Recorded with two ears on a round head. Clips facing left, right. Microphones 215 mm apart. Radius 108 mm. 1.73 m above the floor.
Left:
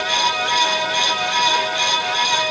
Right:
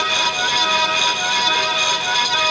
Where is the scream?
I don't hear a scream.